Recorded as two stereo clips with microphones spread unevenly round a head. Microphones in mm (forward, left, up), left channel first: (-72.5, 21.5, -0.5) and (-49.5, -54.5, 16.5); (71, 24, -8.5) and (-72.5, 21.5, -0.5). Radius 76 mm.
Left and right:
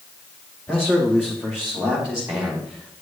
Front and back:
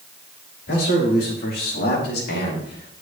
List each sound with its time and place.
0.7 s a man speaking: 25° left, 4.5 m; by 3.0 s 5° left, 3 m